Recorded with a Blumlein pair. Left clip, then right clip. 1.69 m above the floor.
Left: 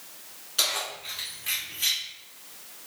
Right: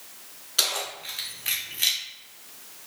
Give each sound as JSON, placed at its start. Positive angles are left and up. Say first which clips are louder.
{"t": 0.6, "sound": "keys jangling", "louder": "right 1 dB", "azimuth_deg": -20, "distance_m": 1.8}